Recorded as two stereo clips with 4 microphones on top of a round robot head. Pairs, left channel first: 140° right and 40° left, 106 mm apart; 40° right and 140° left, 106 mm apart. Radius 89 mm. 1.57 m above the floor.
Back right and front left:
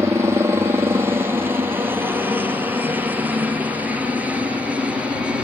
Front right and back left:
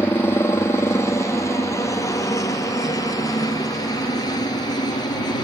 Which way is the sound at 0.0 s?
5° left.